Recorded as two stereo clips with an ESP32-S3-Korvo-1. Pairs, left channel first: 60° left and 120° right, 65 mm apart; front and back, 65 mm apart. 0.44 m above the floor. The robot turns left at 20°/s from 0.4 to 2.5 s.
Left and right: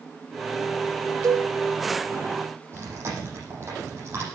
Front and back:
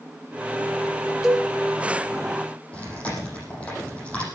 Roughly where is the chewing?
Right.